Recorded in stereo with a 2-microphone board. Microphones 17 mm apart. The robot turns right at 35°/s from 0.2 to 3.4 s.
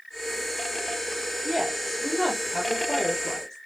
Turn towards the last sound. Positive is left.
turn(degrees=30)